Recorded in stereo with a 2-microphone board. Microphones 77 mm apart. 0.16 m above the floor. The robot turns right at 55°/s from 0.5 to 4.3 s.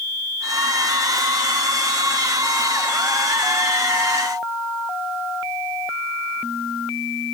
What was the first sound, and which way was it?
Only background noise.